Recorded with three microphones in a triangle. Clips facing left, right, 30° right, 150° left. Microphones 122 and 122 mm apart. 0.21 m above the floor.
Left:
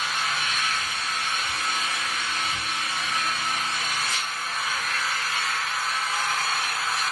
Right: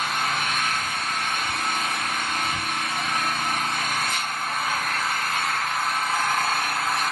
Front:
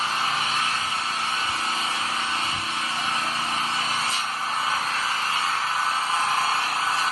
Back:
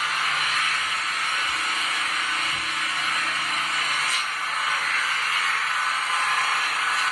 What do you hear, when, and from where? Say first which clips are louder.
0.0 s an engine running: right 3 dB, front 2 dB; 80° right, 0.8 m